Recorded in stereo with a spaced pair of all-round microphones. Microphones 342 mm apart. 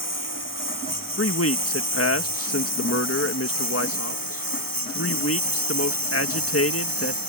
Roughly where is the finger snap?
No finger snap in this recording.